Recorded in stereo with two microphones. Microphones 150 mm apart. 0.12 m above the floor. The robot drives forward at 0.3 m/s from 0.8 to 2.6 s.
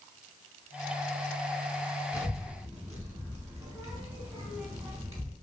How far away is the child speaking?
About 0.8 m.